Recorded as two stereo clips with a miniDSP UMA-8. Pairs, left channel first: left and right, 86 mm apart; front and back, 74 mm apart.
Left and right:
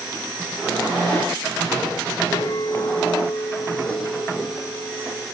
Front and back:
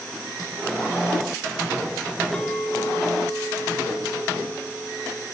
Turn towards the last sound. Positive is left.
turn(degrees=75)